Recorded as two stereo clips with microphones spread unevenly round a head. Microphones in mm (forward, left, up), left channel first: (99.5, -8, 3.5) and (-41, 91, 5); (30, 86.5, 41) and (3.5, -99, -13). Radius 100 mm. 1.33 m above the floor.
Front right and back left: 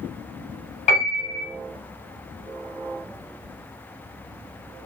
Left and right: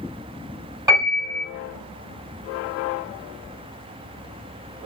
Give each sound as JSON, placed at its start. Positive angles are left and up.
{"t": 0.9, "sound": "a piano", "azimuth_deg": -15, "distance_m": 1.2}